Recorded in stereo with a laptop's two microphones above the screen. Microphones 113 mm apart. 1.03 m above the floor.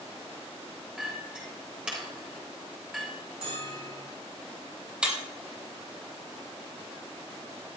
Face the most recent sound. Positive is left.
turn(degrees=-10)  # may be behind; listen again after turning